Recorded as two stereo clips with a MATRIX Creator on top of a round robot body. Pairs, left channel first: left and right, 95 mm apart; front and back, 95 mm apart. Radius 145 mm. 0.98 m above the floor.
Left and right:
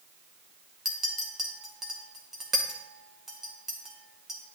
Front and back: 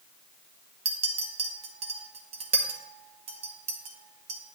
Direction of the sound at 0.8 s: 175° right.